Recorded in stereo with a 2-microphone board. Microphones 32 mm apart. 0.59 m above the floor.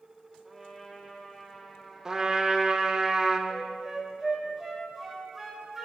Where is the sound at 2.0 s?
20° right (ahead or behind), 0.8 m.